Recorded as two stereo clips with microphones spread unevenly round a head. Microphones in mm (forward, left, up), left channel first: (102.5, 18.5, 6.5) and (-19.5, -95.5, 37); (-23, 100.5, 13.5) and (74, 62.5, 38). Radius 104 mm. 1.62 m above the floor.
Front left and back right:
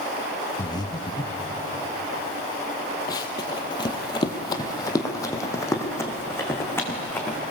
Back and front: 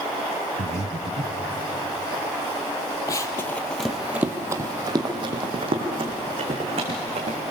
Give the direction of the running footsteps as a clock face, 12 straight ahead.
8 o'clock.